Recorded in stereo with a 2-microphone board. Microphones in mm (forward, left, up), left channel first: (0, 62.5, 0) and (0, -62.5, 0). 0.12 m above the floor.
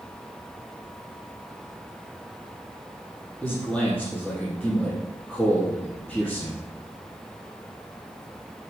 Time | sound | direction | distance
3.4 | a man speaking | 5° left (ahead or behind) | 4 m